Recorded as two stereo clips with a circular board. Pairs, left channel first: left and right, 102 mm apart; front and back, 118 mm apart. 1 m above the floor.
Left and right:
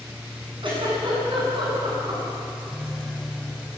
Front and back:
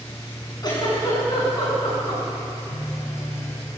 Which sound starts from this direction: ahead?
A phone buzzing, at 2.7 s.